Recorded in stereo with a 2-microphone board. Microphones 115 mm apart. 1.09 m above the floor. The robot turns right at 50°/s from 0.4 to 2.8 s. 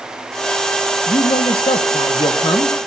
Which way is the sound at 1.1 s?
45° left.